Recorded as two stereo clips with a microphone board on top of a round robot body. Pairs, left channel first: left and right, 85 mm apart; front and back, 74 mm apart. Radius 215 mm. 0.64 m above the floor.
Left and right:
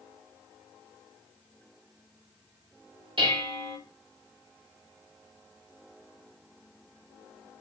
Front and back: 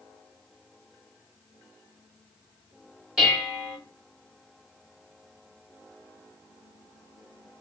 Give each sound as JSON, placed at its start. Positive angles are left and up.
{"t": 3.2, "sound": "dishes clattering", "azimuth_deg": -95, "distance_m": 1.8}